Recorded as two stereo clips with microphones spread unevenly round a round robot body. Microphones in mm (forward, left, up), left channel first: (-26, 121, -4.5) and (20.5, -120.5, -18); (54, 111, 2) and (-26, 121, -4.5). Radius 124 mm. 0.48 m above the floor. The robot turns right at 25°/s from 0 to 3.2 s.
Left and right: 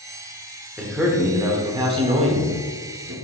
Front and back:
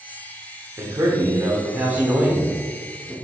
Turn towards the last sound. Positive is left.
turn(degrees=-100)